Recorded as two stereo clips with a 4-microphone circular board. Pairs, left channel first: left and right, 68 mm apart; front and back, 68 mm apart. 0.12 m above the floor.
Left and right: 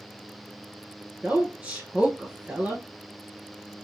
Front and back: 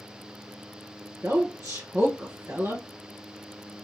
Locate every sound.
1.2 s a woman speaking: 160° right, 2 m